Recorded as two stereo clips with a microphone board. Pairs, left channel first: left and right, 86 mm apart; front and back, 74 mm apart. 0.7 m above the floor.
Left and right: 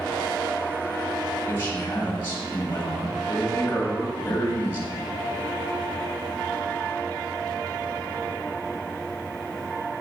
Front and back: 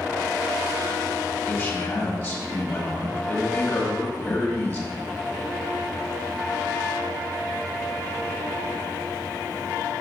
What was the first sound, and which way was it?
A man speaking, 35° left.